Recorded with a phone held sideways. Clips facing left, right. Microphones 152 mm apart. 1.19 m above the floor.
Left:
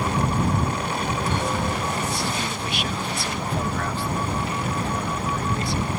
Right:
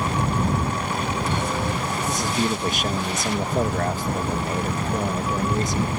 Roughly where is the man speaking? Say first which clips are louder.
Right 4 dB; right.